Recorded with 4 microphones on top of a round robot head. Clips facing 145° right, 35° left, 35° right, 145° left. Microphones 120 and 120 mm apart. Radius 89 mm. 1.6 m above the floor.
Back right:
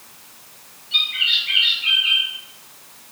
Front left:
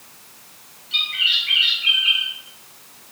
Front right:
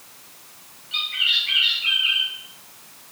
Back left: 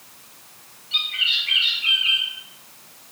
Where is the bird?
85° left, 1.7 m.